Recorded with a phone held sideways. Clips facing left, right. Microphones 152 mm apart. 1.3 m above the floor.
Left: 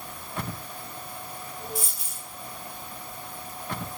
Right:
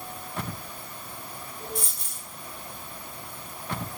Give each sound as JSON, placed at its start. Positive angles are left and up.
{"t": 1.8, "sound": "a dropped coin", "side_deg": 5, "distance_m": 3.0}